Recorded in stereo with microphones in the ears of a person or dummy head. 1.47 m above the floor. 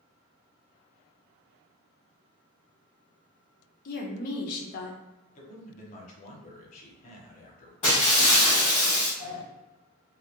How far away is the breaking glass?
About 1.0 m.